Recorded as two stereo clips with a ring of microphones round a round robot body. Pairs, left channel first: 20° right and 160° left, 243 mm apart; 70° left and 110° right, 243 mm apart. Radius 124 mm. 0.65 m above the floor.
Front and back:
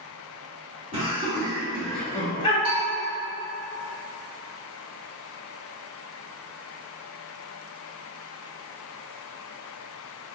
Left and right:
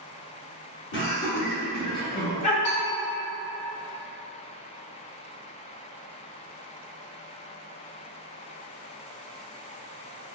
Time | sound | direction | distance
0.9 | laughter | 95° left | 1.7 m
2.6 | a bell | 85° left | 1.9 m